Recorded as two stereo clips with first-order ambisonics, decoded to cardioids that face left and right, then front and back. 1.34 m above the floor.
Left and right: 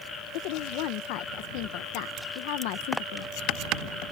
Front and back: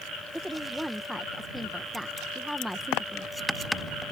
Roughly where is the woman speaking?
Left.